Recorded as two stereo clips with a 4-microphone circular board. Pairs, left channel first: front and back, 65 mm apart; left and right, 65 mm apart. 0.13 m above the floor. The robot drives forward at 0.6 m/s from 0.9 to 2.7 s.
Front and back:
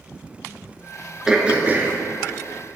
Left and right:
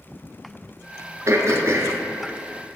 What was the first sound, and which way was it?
Throat clearing, 100° right.